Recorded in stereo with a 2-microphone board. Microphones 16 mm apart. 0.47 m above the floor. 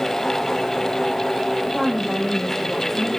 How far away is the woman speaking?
About 2 m.